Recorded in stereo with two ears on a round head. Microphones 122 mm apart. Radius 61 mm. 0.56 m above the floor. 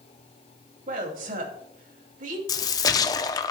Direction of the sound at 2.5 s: 30° left (ahead or behind).